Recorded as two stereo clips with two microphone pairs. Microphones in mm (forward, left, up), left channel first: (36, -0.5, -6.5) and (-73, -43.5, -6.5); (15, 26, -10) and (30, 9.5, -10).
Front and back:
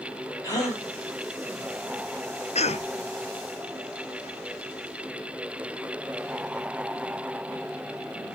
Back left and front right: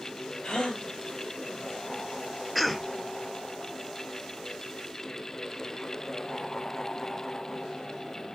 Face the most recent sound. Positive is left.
turn(degrees=45)